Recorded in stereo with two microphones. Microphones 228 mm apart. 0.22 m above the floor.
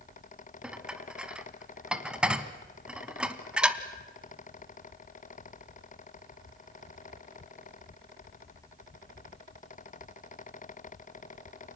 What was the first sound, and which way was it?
Dishes clattering, 5° right (ahead or behind).